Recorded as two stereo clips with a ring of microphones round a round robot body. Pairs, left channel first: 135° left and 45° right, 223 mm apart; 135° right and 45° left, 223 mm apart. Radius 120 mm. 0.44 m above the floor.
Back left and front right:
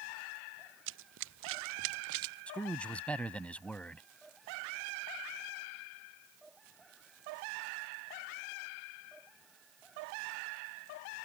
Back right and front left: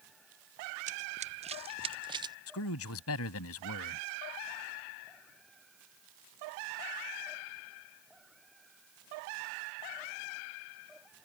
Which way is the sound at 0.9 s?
10° right.